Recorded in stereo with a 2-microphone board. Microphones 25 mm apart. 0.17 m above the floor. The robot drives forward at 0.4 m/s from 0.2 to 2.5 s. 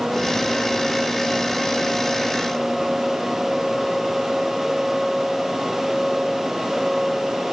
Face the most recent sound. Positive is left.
No sound to turn to.